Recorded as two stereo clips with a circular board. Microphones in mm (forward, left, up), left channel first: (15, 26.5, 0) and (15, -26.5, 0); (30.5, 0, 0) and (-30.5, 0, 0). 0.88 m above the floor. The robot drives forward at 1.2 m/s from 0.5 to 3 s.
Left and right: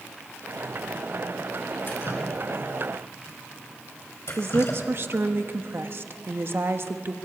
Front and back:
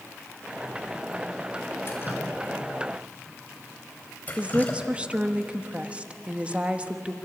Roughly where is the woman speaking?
Behind right.